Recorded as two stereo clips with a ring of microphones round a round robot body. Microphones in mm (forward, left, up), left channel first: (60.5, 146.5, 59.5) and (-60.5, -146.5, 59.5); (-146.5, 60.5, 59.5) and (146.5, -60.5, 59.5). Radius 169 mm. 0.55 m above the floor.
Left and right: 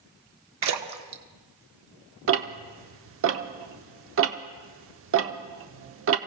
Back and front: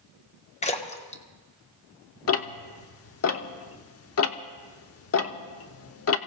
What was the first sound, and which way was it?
A splash, 135° right.